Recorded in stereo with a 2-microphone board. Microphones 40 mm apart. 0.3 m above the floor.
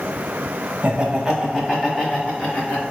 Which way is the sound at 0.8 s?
30° right (ahead or behind).